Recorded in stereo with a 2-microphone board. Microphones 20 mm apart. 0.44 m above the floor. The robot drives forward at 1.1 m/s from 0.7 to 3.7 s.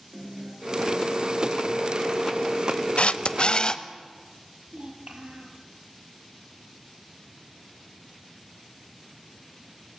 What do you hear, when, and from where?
0.1 s a guitar: 55° right (ahead or behind), 5 m; by 4.0 s 80° right, 4.5 m
3.0 s a camera shutter: 70° left (ahead or behind), 0.8 m; by 3.8 s 40° left (ahead or behind), 1.3 m
4.7 s a child speaking: 65° right (ahead or behind), 5.5 m